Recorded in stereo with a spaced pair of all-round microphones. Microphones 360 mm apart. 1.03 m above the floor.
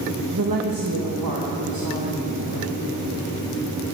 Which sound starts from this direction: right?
A woman speaking, at 0.3 s.